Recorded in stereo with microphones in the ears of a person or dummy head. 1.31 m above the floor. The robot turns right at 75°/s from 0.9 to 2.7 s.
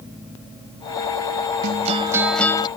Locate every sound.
1.6 s a guitar: 45° right; by 2.7 s 35° left